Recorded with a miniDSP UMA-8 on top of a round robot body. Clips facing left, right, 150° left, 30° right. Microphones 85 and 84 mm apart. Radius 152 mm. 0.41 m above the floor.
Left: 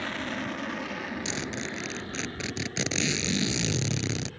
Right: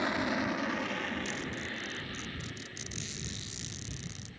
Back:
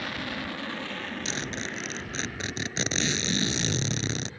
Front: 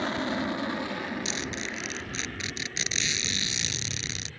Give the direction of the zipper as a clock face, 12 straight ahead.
9 o'clock.